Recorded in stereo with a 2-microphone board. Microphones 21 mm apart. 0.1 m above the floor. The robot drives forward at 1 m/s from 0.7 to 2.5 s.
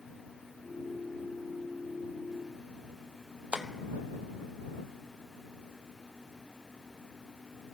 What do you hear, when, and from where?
3.5 s tapping: 65° right (ahead or behind), 0.8 m